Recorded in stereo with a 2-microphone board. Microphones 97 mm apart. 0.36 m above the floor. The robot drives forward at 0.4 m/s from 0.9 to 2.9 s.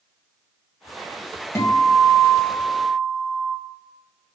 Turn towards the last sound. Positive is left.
turn(degrees=15)  # may be behind; listen again after turning